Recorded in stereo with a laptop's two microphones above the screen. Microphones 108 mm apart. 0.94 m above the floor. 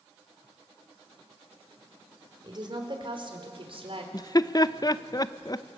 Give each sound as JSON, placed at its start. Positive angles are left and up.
{"t": 2.4, "sound": "a woman speaking", "side_deg": -40, "distance_m": 4.0}
{"t": 4.1, "sound": "laughter", "side_deg": 35, "distance_m": 0.5}